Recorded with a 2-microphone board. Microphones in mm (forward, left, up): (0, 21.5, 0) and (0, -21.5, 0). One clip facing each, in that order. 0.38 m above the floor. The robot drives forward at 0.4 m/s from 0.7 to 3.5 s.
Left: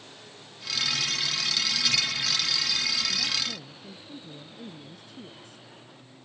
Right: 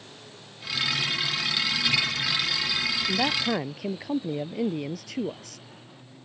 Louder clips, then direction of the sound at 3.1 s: Right 6 dB; 80° right.